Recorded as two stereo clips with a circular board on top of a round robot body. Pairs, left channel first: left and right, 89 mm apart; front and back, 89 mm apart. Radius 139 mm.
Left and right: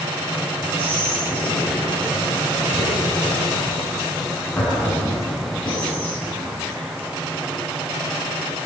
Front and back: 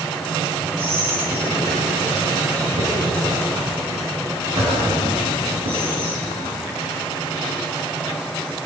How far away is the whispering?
About 9 m.